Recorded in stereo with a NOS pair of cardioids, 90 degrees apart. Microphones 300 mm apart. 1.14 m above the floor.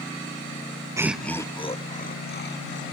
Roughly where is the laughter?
Ahead.